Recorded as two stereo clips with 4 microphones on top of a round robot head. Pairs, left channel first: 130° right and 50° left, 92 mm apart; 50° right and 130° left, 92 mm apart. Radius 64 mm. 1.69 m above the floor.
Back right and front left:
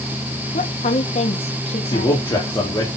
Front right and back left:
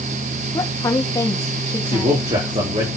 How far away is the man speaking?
About 4.5 m.